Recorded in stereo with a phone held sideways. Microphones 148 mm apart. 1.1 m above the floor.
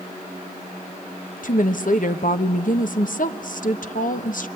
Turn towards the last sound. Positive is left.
turn(degrees=65)  # may be behind; listen again after turning